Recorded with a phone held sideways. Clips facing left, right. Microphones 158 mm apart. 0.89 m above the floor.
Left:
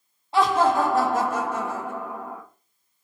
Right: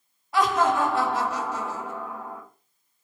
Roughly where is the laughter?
Left.